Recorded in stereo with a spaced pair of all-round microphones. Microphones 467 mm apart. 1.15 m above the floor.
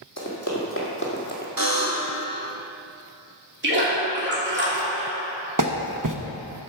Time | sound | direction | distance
0.2 | running footsteps | 35° left (ahead or behind) | 2.5 m
1.6 | a buzzer | 45° right (ahead or behind) | 2.5 m
3.6 | a splash | 25° right (ahead or behind) | 3 m
5.6 | a clap | 40° right (ahead or behind) | 0.7 m